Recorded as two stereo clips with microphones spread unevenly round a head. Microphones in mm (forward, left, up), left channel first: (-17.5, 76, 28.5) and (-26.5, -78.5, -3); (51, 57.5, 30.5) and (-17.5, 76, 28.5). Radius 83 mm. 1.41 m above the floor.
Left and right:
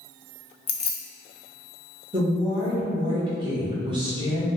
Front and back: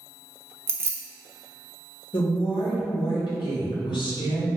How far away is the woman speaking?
About 1.2 m.